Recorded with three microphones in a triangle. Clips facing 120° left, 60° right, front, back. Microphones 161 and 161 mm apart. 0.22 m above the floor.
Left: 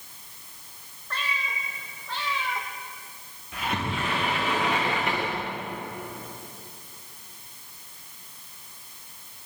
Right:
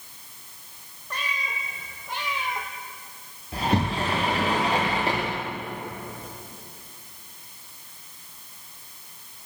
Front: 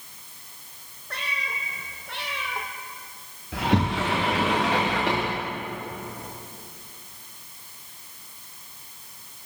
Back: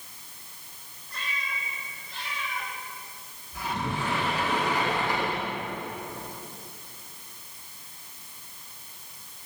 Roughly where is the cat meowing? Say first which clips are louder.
Even, front 3 dB; ahead.